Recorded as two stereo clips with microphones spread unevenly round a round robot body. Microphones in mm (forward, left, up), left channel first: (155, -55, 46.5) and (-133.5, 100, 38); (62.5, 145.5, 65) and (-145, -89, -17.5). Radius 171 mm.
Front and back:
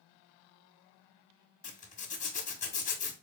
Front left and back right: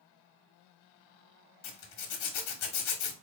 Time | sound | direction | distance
1.6 | a zipper | 40° left | 1.3 m